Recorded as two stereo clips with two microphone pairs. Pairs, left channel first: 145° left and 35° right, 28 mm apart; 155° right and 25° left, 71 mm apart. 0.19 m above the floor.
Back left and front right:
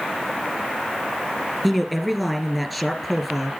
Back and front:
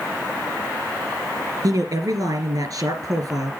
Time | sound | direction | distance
1.6 | a man speaking | 50° left | 3.5 m